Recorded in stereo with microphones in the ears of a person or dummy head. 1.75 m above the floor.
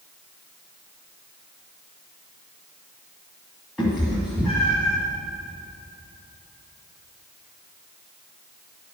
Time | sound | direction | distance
3.8 | a cat meowing | centre (ahead or behind) | 1.7 m